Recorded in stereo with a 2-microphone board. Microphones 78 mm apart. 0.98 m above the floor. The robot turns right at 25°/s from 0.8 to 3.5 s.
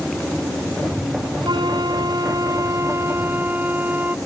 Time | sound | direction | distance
1.4 | a flute | 75° right | ?